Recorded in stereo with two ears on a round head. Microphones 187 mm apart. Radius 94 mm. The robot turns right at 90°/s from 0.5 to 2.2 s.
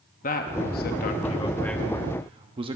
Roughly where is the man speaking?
Ahead left.